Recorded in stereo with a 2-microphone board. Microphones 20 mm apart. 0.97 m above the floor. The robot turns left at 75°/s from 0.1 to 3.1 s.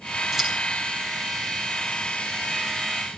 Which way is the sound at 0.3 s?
20° right (ahead or behind).